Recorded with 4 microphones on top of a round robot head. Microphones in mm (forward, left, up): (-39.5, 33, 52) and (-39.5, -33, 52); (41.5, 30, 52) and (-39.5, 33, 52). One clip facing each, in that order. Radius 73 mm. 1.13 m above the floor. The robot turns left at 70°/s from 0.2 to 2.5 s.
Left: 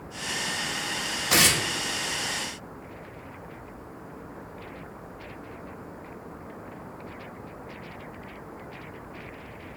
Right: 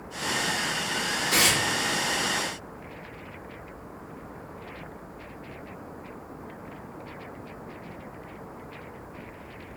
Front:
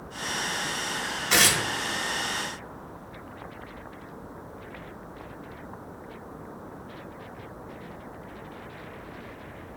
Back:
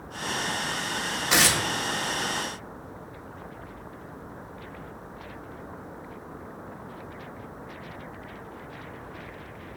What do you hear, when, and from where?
1.3 s tearing paper: 100° left, 0.6 m; by 1.6 s 75° left, 0.6 m